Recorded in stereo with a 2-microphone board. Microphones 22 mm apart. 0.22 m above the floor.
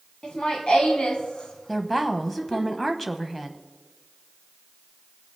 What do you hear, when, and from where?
0.2 s laughter: 45° left (ahead or behind), 1.8 m; by 2.7 s 40° left (ahead or behind), 2.5 m
1.7 s a woman speaking: 10° left (ahead or behind), 1.0 m